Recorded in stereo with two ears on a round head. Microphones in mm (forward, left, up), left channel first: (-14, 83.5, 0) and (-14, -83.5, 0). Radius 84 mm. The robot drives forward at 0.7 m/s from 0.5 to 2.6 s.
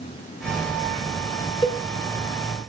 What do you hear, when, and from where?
1.6 s a cowbell: 30° left (ahead or behind), 3 m; by 1.8 s 25° left (ahead or behind), 3 m